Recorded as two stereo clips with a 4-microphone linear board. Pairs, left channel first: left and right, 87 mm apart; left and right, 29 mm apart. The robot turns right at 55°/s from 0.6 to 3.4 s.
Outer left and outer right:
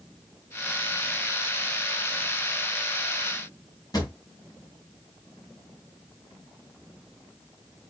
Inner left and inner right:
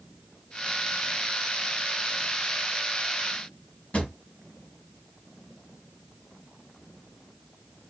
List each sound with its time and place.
3.9 s a drawer: 45° left (ahead or behind), 1.0 m